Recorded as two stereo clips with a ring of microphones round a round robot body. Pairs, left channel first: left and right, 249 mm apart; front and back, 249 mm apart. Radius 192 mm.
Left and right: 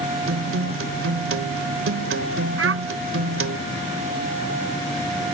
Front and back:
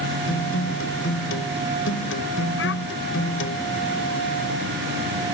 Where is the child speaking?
55° right.